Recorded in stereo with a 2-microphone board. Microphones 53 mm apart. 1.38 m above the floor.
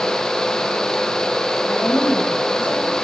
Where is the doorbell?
No doorbell in this recording.